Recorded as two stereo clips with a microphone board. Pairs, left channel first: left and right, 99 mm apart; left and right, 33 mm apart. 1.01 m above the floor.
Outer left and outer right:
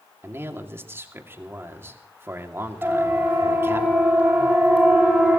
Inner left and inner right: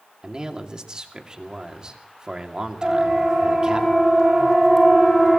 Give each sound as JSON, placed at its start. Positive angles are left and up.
{"t": 0.2, "sound": "a man speaking", "side_deg": -25, "distance_m": 2.5}
{"t": 2.8, "sound": "a siren", "side_deg": -20, "distance_m": 6.0}